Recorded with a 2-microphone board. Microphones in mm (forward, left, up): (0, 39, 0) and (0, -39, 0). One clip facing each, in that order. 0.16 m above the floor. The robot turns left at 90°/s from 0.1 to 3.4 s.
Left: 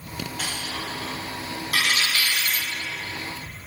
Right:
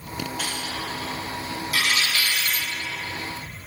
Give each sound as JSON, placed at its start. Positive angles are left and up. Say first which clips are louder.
{"t": 0.4, "sound": "a dropped coin", "louder": "right 1 dB", "side_deg": 0, "distance_m": 4.5}